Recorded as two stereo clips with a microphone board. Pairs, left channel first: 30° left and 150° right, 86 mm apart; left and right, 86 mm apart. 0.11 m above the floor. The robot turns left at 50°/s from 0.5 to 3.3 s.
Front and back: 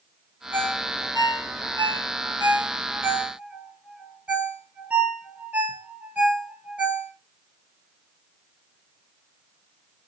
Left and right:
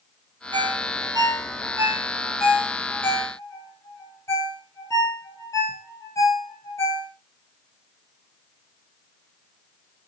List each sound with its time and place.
0.5 s a ringtone: 80° right, 2 m; by 7.1 s 140° left, 2 m